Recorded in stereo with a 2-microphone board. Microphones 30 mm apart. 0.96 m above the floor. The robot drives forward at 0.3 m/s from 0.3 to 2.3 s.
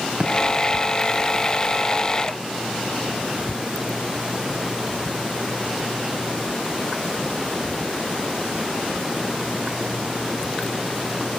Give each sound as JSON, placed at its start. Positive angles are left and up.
{"t": 0.2, "sound": "a thud", "side_deg": -30, "distance_m": 3.5}